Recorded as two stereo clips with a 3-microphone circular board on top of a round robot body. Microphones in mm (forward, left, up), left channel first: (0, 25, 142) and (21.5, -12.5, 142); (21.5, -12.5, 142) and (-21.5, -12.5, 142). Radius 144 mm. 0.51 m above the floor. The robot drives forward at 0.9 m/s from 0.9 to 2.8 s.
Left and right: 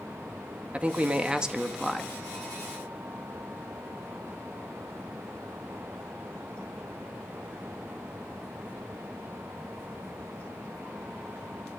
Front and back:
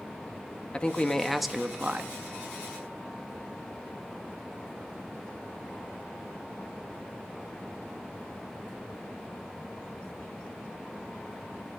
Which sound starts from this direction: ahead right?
A man speaking, at 0.7 s.